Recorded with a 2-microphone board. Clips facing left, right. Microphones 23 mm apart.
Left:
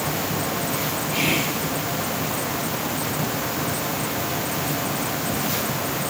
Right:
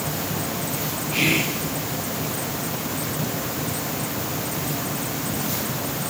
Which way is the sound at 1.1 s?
55° right (ahead or behind).